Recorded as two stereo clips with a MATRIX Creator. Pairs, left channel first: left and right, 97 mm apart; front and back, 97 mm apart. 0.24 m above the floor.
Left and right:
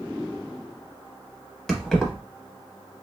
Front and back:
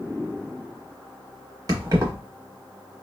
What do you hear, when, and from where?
1.7 s keys jangling: 175° left, 0.8 m